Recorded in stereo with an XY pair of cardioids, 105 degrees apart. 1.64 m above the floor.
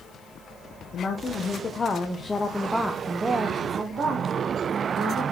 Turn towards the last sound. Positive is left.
turn(degrees=-70)